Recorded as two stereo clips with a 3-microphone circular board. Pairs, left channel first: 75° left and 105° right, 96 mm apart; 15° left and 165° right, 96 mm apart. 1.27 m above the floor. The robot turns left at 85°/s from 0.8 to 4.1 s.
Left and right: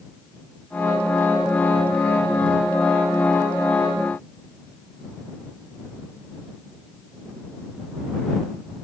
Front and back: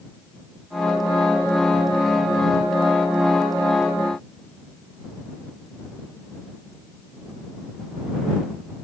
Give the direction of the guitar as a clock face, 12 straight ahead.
I don't hear a guitar.